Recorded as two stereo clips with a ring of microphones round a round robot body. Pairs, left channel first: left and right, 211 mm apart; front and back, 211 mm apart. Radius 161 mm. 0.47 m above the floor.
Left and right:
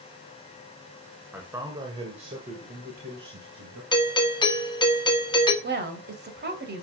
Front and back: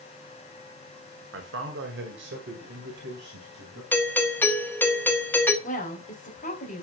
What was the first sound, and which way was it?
A man speaking, 170° right.